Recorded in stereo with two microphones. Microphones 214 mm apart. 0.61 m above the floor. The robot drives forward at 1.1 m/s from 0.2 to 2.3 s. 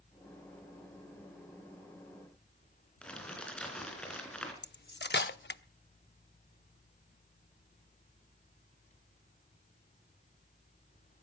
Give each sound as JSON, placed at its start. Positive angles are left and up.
{"t": 3.0, "sound": "crumpling", "side_deg": 5, "distance_m": 3.0}
{"t": 4.6, "sound": "cutlery clinking", "side_deg": 55, "distance_m": 0.6}